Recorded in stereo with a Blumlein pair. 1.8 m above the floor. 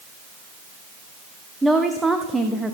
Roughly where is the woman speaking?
Ahead.